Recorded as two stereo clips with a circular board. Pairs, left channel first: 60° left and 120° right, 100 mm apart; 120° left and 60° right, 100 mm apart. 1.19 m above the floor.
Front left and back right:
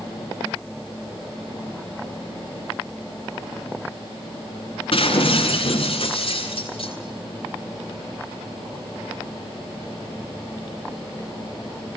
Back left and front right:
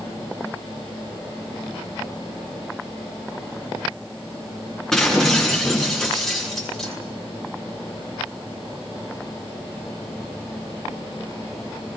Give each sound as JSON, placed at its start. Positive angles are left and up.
{"t": 4.9, "sound": "breaking glass", "azimuth_deg": 35, "distance_m": 7.5}